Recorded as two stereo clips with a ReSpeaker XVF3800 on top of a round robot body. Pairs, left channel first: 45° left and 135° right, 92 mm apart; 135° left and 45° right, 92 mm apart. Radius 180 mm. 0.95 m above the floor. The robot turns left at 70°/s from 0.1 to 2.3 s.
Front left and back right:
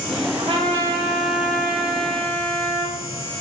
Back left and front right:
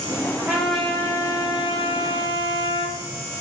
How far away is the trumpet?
About 5.5 m.